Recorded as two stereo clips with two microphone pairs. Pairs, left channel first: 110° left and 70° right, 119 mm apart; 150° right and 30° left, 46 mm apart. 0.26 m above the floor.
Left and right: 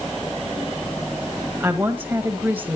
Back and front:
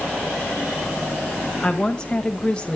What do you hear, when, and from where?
1.6 s a woman speaking: 120° right, 1.5 m